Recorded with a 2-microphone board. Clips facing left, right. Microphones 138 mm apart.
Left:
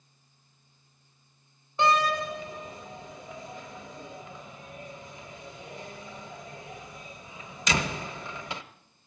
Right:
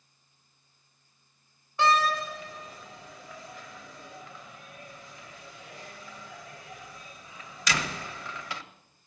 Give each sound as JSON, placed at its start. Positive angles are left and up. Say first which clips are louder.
{"t": 1.8, "sound": "a door slam", "louder": "even", "side_deg": 20, "distance_m": 0.8}